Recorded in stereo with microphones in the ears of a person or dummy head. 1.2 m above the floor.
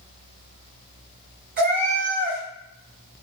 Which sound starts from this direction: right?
A cat meowing, at 1.6 s.